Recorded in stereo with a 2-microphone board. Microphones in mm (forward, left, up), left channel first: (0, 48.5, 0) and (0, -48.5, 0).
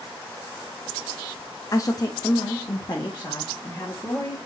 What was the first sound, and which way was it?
A woman speaking, 35° left (ahead or behind).